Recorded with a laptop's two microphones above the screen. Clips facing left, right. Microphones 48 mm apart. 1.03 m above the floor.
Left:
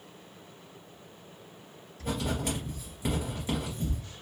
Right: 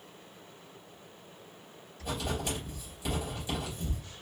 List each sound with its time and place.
2.0 s writing: 50° left (ahead or behind), 3 m